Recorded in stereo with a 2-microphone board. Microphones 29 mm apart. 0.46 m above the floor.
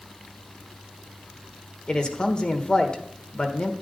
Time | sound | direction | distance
1.9 | a man speaking | 35° left (ahead or behind) | 1.4 m